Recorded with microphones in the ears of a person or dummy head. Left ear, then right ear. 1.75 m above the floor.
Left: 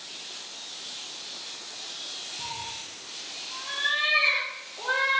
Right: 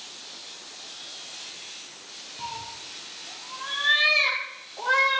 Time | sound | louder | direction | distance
2.4 | a cat meowing | left 1 dB | 25° right (ahead or behind) | 4.5 m